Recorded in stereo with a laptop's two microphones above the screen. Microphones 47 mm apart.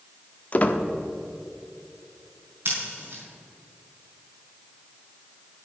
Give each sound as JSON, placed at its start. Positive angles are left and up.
{"t": 0.5, "sound": "a squeak", "side_deg": 35, "distance_m": 0.8}
{"t": 2.6, "sound": "scissors", "side_deg": -55, "distance_m": 5.0}